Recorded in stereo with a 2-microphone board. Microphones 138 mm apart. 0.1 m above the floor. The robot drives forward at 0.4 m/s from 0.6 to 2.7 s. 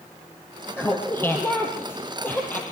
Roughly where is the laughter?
Centre.